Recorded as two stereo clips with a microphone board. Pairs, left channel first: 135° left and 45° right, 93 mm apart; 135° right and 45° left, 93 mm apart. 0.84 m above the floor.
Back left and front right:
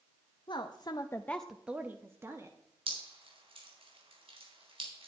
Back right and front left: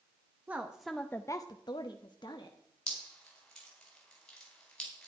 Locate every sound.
0.5 s a woman speaking: 115° left, 0.8 m; by 2.6 s 100° right, 1.3 m
2.9 s dripping: 55° right, 4 m